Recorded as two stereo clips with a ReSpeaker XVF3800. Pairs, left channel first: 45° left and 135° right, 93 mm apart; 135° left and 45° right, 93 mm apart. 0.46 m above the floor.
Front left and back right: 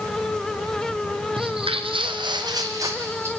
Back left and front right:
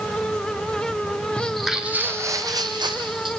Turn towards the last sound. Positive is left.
turn(degrees=-75)